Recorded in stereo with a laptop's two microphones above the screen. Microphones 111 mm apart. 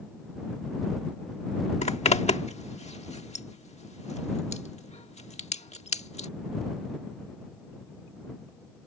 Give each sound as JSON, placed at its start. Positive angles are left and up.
{"t": 1.8, "sound": "a zipper", "side_deg": 90}